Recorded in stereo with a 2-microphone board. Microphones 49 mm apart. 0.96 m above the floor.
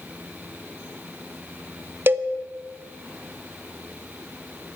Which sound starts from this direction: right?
A cowbell, at 2.1 s.